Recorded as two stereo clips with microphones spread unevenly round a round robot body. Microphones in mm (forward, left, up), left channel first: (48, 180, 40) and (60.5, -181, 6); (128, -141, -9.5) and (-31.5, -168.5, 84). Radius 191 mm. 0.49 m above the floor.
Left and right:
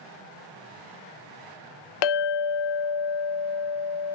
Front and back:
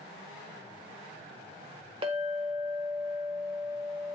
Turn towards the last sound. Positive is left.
turn(degrees=105)